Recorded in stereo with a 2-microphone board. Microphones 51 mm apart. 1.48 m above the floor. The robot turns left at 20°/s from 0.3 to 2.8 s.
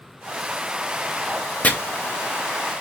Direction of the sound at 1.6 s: 35° left (ahead or behind).